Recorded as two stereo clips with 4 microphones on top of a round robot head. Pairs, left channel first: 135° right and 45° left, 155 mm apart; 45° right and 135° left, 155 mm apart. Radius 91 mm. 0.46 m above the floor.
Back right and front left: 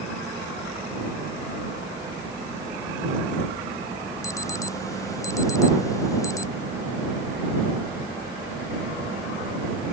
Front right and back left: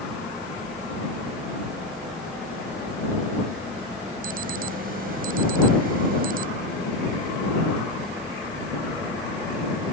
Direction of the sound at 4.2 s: 160° left.